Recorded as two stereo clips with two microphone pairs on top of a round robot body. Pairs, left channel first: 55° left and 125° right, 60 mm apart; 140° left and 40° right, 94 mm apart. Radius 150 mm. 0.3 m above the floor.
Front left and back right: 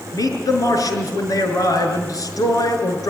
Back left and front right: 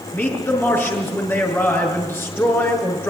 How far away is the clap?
No clap in this recording.